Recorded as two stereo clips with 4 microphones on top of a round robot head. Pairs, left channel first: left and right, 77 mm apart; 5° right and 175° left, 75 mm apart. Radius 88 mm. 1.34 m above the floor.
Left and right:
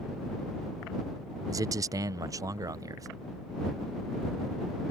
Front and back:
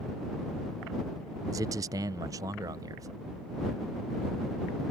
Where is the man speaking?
135° right.